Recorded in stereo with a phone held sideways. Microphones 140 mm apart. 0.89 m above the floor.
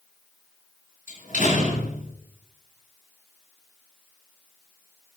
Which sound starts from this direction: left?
A door slam, at 1.1 s.